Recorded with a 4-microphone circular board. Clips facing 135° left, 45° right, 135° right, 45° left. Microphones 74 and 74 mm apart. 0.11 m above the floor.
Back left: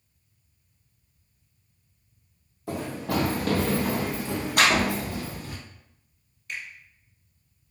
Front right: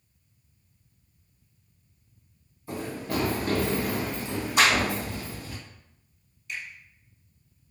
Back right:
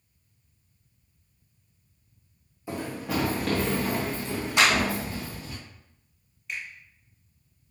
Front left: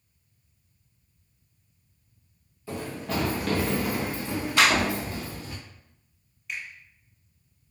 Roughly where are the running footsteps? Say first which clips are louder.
Back left 2 dB, back right 1 dB; behind left.